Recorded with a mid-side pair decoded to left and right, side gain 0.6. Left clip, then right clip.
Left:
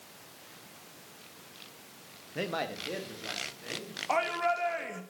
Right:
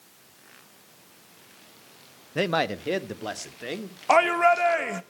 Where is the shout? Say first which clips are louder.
Right 10 dB; 50° right, 1.2 m.